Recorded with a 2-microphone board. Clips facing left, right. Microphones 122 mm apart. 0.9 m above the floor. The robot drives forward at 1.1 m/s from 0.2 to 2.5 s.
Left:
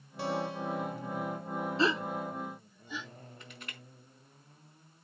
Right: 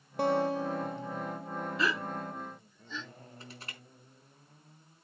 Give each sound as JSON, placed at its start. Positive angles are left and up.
{"t": 0.2, "sound": "a guitar", "side_deg": -55, "distance_m": 1.1}
{"t": 1.8, "sound": "a gasp", "side_deg": 30, "distance_m": 0.5}
{"t": 3.4, "sound": "crushing", "side_deg": -35, "distance_m": 5.0}